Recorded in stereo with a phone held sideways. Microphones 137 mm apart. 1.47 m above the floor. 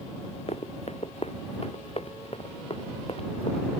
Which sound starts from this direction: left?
Running footsteps, at 0.5 s.